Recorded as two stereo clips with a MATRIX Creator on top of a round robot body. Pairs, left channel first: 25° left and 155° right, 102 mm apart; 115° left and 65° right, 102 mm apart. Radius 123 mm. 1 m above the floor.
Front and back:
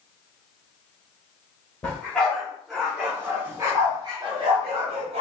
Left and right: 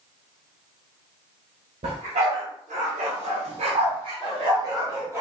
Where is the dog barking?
55° right, 1.9 m; by 5.2 s 135° right, 1.4 m.